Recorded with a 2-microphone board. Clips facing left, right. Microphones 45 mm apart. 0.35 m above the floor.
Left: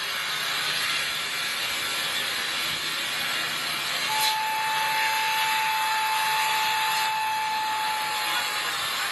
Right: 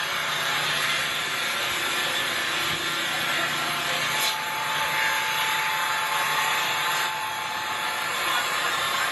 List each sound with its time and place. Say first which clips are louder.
0.0 s an engine running: right 3 dB; 45° right (ahead or behind), 4 m
4.1 s a flute: left 1 dB; 50° left (ahead or behind), 2.5 m